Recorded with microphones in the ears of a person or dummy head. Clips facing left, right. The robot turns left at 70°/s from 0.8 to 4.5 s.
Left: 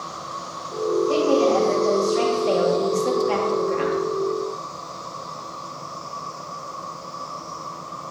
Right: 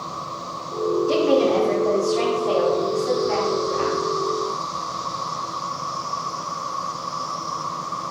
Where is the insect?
150° left, 0.8 m; by 8.1 s 110° right, 0.8 m.